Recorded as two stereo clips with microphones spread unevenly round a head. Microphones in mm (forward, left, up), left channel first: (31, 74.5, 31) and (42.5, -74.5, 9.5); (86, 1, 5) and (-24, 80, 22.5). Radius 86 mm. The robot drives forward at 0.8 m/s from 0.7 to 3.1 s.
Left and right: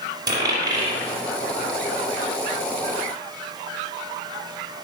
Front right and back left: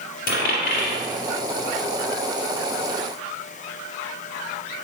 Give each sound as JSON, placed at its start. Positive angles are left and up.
{"t": 0.3, "sound": "a dropped coin", "azimuth_deg": -15, "distance_m": 3.5}